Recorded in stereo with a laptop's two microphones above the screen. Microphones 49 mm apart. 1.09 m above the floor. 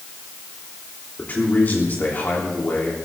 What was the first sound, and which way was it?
A man speaking, 40° left (ahead or behind).